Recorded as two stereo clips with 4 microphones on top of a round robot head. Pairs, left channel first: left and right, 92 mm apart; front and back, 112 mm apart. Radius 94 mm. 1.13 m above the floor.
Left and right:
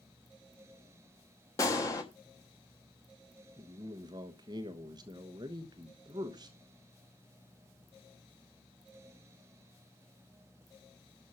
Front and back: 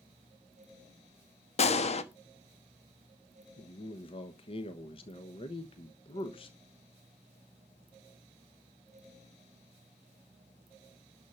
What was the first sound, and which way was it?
A gunshot, 25° left.